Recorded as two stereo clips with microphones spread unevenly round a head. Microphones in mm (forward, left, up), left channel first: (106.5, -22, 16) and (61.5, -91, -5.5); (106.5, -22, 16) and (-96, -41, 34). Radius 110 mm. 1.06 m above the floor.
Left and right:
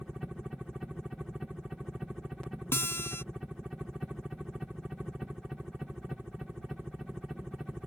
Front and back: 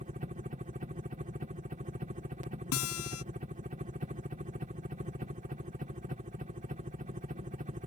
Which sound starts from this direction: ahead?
A guitar, at 2.7 s.